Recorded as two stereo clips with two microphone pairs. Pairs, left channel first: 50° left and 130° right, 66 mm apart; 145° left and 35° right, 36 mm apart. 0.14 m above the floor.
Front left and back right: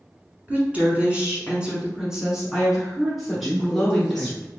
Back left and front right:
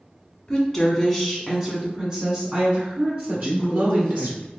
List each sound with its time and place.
0.5 s a woman speaking: 150° right, 1.4 m; by 4.3 s 30° right, 2 m
3.3 s a man speaking: 175° left, 1.1 m